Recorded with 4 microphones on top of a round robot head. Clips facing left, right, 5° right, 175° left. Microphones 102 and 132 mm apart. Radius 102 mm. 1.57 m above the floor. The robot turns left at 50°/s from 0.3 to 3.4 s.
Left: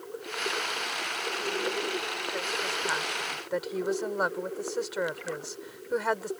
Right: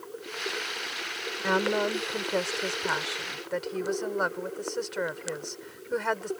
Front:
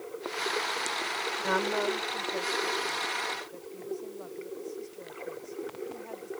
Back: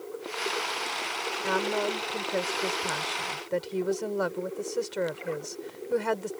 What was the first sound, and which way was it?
A woman speaking, 90° right.